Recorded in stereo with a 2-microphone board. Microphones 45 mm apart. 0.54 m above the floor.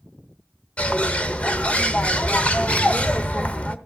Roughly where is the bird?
Left.